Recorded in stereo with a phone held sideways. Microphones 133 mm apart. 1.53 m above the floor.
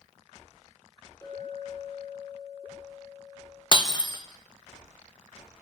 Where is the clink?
25° left (ahead or behind), 3 m.